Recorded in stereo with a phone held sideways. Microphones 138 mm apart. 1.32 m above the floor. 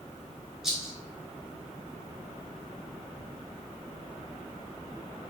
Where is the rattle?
Centre (ahead or behind), 1.9 m.